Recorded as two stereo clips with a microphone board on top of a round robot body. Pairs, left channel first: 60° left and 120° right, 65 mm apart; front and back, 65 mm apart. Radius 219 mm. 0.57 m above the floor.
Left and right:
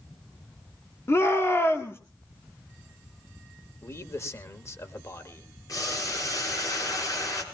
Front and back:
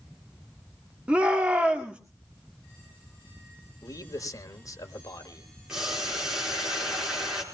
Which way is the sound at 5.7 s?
95° left.